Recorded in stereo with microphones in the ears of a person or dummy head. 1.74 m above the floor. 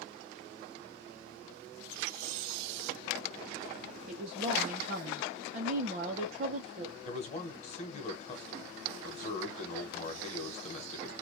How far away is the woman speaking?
About 0.6 m.